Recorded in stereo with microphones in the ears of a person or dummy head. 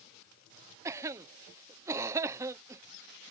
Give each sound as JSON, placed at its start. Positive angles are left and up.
{"t": 0.8, "sound": "a cough", "side_deg": -15}